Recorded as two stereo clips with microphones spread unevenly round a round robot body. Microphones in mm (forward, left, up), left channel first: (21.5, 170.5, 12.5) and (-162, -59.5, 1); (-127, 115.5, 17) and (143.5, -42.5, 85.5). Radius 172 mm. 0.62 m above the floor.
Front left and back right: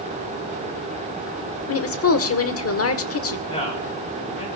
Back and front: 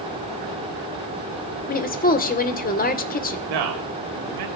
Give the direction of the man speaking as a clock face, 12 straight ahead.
1 o'clock.